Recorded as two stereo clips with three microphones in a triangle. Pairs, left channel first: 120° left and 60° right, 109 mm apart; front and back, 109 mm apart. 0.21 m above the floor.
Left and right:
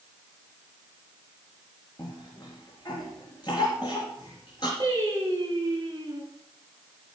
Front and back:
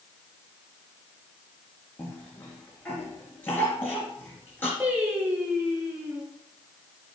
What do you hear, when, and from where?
2.0 s a cough: 70° left, 3.5 m
4.8 s singing: 110° right, 6.5 m